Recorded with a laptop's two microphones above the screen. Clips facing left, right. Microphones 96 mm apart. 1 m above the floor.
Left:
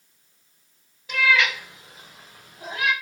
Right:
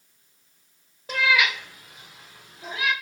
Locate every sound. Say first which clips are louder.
1.1 s a cat meowing: left 1 dB; 35° right (ahead or behind), 0.8 m; by 2.9 s 55° left (ahead or behind), 2.0 m